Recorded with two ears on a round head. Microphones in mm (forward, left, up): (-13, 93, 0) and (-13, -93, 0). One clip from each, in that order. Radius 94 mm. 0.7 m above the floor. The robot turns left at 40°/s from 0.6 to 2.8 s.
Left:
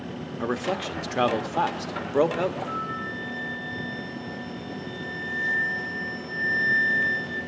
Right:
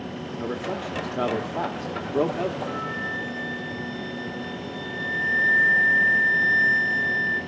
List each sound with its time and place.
0.4 s a man speaking: 50° left (ahead or behind), 1.2 m; by 2.6 s 25° left (ahead or behind), 1.2 m
2.7 s a flute: 40° right (ahead or behind), 8 m; by 7.4 s 45° right (ahead or behind), 8 m